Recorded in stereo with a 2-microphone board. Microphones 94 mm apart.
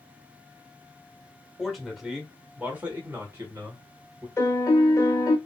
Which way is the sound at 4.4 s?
30° left (ahead or behind).